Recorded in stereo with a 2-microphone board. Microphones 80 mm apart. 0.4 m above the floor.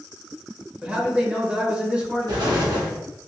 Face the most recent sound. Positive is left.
turn(degrees=-65)  # may be behind; listen again after turning